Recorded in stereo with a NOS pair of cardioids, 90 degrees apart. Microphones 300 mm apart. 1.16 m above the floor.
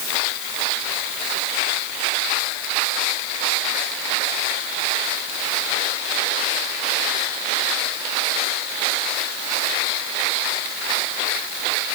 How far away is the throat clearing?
I don't hear throat clearing.